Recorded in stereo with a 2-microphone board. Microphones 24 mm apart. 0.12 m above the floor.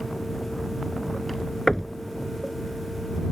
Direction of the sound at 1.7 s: 15° left (ahead or behind).